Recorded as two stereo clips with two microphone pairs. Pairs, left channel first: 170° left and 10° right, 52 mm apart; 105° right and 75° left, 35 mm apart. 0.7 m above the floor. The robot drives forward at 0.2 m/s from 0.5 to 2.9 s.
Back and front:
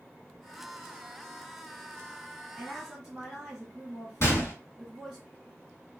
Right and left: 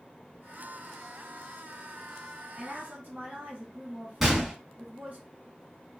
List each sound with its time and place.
2.6 s a woman speaking: 70° left, 1.1 m; by 5.2 s 75° left, 1.1 m
4.2 s a gunshot: 155° left, 1.0 m